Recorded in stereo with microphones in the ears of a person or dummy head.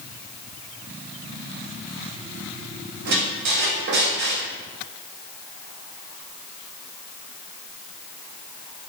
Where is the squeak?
55° right (ahead or behind), 0.6 m.